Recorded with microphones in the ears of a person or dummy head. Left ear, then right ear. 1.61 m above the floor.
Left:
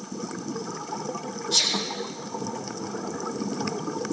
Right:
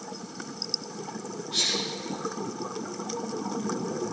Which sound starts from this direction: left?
A sneeze, at 1.5 s.